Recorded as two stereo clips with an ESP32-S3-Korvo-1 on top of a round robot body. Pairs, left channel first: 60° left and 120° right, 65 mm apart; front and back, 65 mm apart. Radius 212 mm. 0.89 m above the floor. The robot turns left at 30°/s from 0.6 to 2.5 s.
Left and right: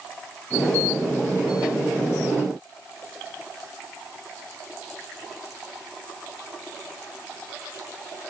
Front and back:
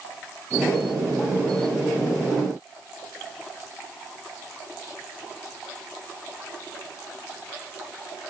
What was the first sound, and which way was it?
Only background noise.